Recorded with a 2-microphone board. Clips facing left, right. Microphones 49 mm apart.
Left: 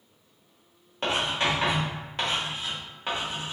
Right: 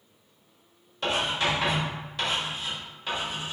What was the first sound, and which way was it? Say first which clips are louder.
Writing: even; 35° left (ahead or behind).